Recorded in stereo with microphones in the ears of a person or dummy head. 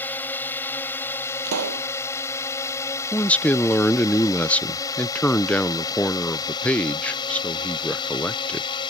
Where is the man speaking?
10° left (ahead or behind).